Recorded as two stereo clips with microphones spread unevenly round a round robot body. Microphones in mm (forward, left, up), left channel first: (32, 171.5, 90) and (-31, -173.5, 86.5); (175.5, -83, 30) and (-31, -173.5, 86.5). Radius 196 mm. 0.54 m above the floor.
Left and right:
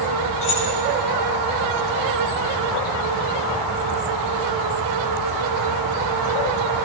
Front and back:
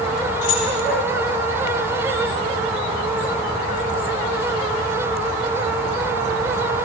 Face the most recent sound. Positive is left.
turn(degrees=40)